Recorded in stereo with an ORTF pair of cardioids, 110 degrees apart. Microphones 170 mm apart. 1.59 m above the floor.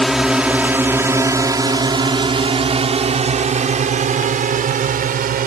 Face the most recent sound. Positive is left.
turn(degrees=-55)